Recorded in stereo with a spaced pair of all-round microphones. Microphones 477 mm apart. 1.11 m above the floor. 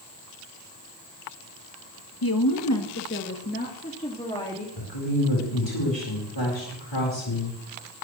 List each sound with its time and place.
2.2 s a woman speaking: 50° left (ahead or behind), 1.1 m; by 4.7 s 10° left (ahead or behind), 2.5 m
4.8 s a woman speaking: 65° left (ahead or behind), 4.5 m